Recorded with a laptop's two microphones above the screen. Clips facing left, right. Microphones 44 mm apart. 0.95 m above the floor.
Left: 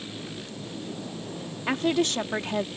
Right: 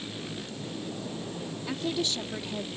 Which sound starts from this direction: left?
A woman speaking, at 1.7 s.